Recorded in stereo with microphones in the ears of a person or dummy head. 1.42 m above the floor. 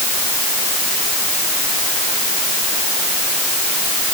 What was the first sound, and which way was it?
Only background noise.